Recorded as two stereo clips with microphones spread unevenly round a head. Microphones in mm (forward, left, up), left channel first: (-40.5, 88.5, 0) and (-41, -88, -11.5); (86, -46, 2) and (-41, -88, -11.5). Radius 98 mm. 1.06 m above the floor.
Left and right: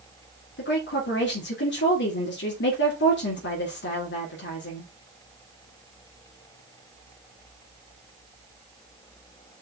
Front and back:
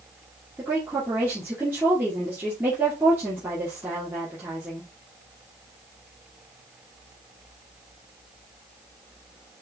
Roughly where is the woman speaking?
Behind left.